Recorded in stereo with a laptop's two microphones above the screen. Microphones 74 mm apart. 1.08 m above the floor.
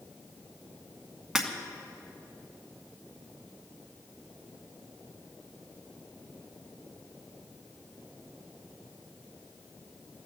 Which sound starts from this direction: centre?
Breaking glass, at 1.4 s.